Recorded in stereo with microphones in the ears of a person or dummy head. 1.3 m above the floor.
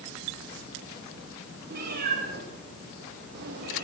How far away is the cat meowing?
About 4.5 m.